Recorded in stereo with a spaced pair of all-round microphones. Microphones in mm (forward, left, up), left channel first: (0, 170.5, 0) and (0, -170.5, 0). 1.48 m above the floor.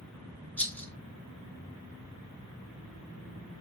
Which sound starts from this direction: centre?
A rattle, at 0.6 s.